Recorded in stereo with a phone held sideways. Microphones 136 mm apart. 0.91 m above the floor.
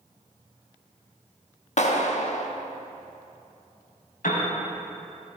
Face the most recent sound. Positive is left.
turn(degrees=85)